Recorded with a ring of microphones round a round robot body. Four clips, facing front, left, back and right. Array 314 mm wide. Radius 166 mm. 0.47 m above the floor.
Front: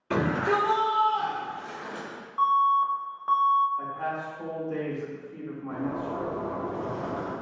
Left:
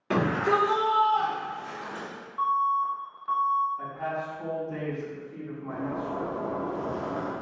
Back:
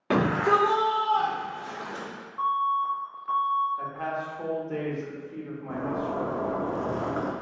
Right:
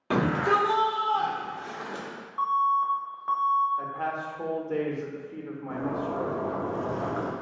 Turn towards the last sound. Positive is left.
turn(degrees=-150)